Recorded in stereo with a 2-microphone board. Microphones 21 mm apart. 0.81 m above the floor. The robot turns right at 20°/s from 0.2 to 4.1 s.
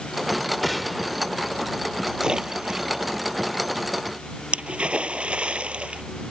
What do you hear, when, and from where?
0.6 s a gunshot: 5° left (ahead or behind); by 1.1 s 5° right (ahead or behind)
2.2 s a splash: 35° right (ahead or behind); by 6.0 s 75° right (ahead or behind)